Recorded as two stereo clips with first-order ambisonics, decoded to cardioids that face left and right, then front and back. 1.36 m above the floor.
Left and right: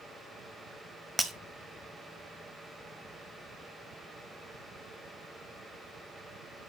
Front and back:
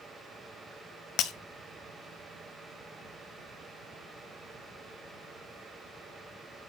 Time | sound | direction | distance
1.2 | breaking glass | 10° right | 0.7 m